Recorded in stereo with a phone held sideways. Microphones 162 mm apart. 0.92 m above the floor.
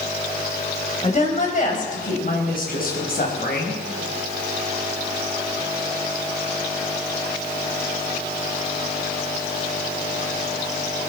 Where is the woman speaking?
45° left (ahead or behind), 4.5 m; by 3.8 s 65° left (ahead or behind), 5.5 m.